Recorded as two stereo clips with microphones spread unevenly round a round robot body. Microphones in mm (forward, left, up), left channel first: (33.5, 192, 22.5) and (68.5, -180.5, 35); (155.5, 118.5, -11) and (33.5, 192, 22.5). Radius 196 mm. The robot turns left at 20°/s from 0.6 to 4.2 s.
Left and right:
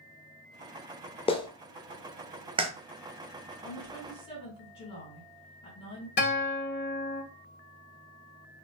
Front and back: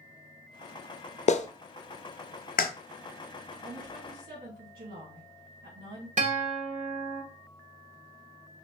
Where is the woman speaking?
Straight behind, 2 m; by 6.1 s 170° left, 2 m.